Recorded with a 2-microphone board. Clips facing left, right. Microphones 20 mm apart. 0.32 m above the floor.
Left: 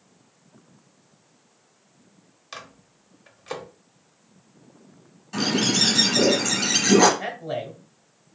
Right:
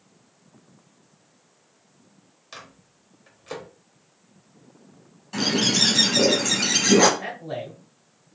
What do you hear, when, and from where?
2.5 s a microwave: 20° left (ahead or behind), 0.7 m
5.3 s a bird: 5° right (ahead or behind), 1.3 m
7.2 s a man speaking: 25° left (ahead or behind), 1.0 m